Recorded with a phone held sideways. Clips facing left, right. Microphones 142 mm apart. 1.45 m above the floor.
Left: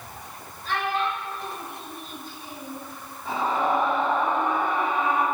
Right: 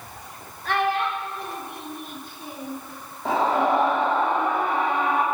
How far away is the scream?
About 3 m.